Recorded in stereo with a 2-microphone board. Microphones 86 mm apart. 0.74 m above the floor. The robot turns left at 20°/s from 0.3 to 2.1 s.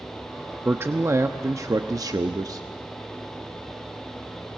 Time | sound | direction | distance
0.7 | a man speaking | 25° right (ahead or behind) | 0.7 m